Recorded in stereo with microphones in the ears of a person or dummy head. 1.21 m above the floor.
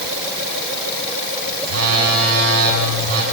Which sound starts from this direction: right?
A phone buzzing, at 1.6 s.